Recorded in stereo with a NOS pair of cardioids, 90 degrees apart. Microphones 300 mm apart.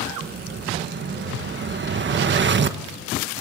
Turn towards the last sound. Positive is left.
turn(degrees=-40)